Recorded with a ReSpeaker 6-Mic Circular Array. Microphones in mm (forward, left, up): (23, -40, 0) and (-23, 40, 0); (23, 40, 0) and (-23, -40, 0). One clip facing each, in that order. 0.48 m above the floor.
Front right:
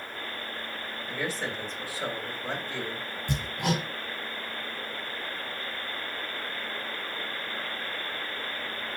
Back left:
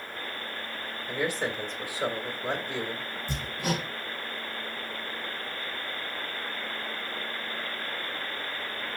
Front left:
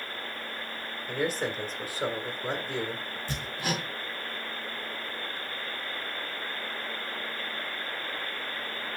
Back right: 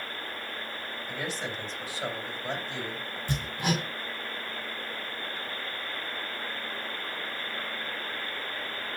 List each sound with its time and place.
1.1 s a man speaking: 55° left, 1.7 m
3.3 s hammering: 50° right, 2.5 m